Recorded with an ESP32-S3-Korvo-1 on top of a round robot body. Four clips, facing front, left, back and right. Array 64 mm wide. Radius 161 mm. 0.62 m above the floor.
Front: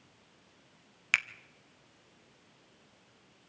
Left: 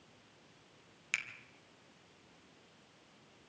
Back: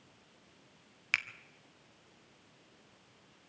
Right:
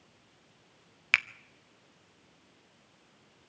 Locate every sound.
1.1 s a finger snap: 70° right, 0.8 m